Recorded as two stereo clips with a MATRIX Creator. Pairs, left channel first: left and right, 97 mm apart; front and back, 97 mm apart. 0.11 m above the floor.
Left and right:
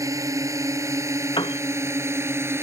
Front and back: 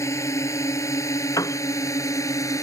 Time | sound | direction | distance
0.0 | a drone | 45° right | ?
1.4 | a piano | 55° left | ?